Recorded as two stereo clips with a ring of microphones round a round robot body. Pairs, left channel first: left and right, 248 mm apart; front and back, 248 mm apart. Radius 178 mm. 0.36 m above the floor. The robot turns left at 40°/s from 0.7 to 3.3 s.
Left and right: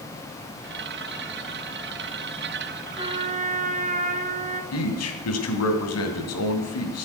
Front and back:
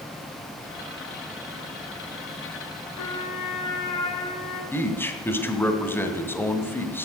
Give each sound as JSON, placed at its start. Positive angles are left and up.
{"t": 3.0, "sound": "a trumpet", "azimuth_deg": -15, "distance_m": 2.0}
{"t": 4.7, "sound": "a man speaking", "azimuth_deg": 80, "distance_m": 2.5}